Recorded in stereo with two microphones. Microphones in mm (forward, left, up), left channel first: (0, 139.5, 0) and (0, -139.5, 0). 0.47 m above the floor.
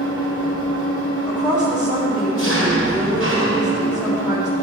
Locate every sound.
0.0 s an engine running: 55° left (ahead or behind), 2.5 m
1.3 s a woman speaking: 5° right (ahead or behind), 2.5 m